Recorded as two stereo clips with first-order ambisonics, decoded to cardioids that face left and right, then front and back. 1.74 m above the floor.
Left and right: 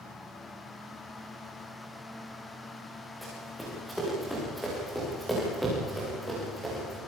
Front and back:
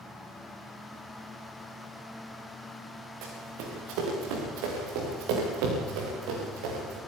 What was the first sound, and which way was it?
Running footsteps, straight behind.